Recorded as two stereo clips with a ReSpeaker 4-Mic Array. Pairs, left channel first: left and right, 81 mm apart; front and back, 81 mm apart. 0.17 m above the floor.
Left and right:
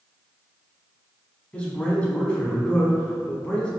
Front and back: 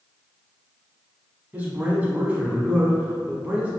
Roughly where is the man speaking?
Behind left.